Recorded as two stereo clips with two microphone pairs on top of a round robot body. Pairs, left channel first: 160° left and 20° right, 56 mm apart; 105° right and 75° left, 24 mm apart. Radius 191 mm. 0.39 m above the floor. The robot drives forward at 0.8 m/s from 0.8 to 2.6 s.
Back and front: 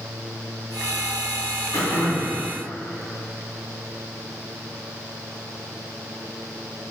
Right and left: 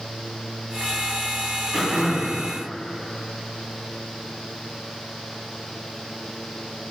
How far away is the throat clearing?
About 2 m.